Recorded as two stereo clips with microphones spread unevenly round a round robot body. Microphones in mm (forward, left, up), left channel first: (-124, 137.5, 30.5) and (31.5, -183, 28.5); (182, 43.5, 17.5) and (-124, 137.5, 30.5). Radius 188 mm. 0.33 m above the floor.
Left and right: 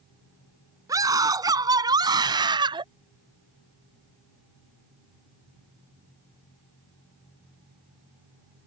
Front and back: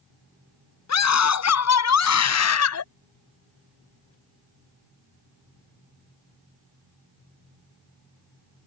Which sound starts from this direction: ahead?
A scream, at 0.9 s.